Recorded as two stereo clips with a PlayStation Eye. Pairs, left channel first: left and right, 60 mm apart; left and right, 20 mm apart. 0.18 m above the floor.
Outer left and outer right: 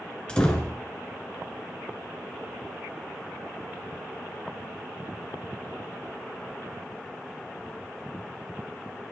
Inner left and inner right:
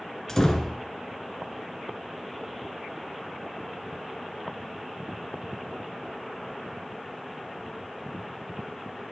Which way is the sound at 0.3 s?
15° left (ahead or behind).